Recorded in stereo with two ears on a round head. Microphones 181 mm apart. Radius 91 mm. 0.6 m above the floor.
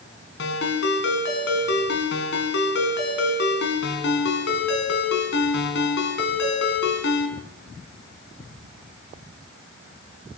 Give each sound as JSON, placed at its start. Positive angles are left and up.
{"t": 0.4, "sound": "a ringtone", "side_deg": 60, "distance_m": 5.0}